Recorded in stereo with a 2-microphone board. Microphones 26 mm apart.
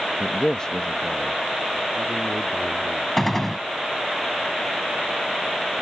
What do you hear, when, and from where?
0.2 s a man speaking: 20° left (ahead or behind); by 3.1 s 50° left (ahead or behind)
3.2 s a gunshot: 10° left (ahead or behind)